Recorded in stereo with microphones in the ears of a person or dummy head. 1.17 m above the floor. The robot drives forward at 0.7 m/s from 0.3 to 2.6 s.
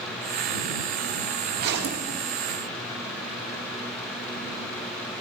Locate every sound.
1.6 s a zipper: 60° right (ahead or behind), 1.7 m; by 2.1 s 70° right (ahead or behind), 1.5 m